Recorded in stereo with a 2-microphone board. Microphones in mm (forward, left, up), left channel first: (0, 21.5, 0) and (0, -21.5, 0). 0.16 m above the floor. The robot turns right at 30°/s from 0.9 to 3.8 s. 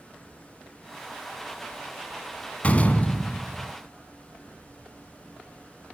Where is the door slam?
85° left, 1.0 m; by 3.7 s 120° left, 1.0 m.